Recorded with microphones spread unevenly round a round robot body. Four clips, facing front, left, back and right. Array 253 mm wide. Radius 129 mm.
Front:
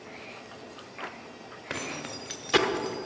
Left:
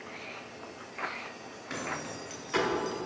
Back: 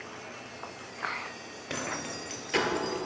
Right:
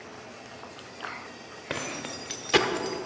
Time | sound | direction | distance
1.7 | keys jangling | 85° right | 1.4 m